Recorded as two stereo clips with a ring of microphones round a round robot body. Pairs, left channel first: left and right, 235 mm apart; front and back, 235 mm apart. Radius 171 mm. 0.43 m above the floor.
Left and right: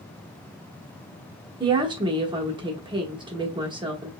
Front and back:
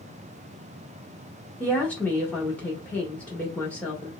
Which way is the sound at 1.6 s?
75° right.